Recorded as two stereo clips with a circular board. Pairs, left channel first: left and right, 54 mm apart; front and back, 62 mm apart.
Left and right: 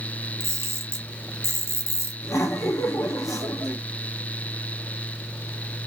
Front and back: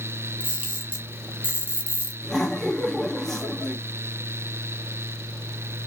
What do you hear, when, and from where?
0.4 s a camera shutter: 120° right, 1.2 m
2.2 s laughter: 85° left, 1.6 m